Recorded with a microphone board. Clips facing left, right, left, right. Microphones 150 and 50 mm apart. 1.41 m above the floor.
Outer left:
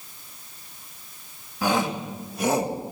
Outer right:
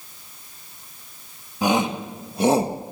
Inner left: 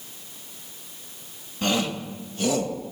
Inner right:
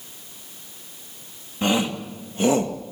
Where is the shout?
20° right (ahead or behind), 2.5 m; by 2.8 s 35° right (ahead or behind), 1.7 m.